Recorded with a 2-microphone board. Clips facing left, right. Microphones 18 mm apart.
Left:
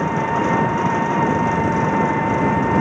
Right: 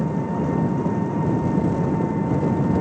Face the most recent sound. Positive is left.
turn(degrees=75)  # may be behind; listen again after turning